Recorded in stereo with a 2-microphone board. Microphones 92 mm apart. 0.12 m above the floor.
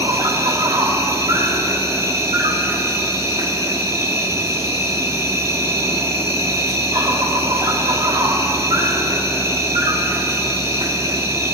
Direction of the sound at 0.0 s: 30° right (ahead or behind).